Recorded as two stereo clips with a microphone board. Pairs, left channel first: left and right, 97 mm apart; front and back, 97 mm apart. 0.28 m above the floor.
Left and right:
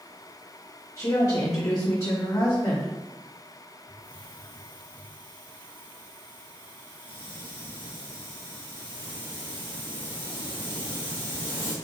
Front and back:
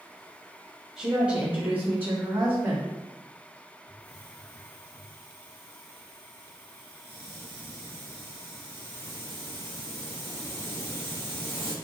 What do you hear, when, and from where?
1.0 s a woman speaking: 100° left, 1.2 m; by 2.9 s 135° left, 1.8 m
3.9 s a hiss: 60° right, 2.0 m